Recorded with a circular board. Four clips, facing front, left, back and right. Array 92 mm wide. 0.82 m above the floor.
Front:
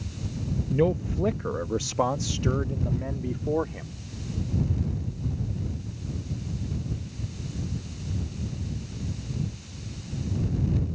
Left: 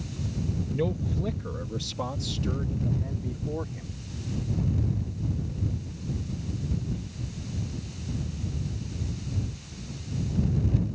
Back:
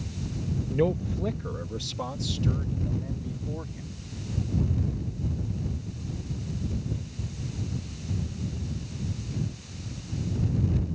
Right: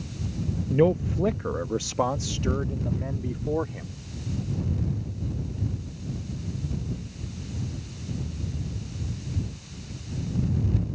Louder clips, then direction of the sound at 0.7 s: Right 9 dB, front 2 dB; 90° right.